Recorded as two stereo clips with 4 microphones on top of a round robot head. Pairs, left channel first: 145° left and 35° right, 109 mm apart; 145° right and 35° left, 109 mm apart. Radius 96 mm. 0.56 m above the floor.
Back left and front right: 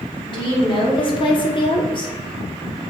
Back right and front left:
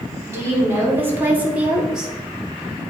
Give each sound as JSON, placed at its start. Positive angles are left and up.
{"t": 0.3, "sound": "a woman speaking", "azimuth_deg": 100, "distance_m": 3.0}